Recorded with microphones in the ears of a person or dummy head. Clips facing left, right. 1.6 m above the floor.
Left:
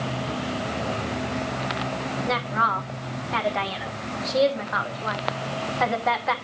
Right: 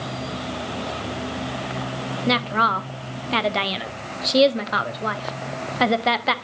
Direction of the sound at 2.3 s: 45° right (ahead or behind).